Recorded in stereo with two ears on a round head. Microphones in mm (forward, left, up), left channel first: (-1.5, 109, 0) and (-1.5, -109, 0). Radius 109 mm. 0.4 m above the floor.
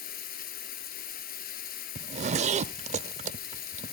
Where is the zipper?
30° right (ahead or behind), 0.6 m.